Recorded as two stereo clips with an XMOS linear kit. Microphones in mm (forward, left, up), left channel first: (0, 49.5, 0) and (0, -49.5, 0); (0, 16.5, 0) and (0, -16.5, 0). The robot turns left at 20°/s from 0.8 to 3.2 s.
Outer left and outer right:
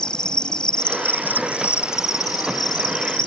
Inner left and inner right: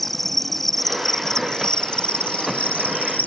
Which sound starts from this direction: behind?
An insect, at 0.0 s.